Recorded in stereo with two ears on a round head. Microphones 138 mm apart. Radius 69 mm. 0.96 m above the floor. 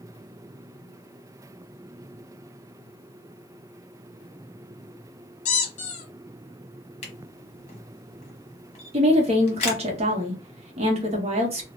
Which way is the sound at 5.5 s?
50° left (ahead or behind).